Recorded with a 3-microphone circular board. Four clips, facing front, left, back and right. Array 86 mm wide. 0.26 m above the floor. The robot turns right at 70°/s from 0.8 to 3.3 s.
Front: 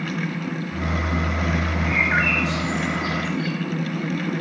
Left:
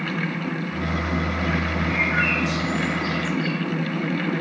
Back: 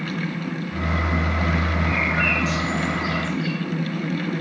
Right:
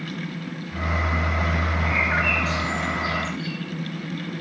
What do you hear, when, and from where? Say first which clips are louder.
1.9 s a bird: even, front 4 dB; 35° right, 6 m; by 3.5 s 65° left, 6 m